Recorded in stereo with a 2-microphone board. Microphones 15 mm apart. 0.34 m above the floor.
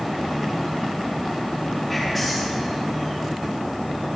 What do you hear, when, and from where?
1.9 s whispering: 10° left (ahead or behind), 3 m